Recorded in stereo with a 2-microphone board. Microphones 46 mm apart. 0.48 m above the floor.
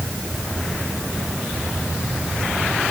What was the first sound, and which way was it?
Only background noise.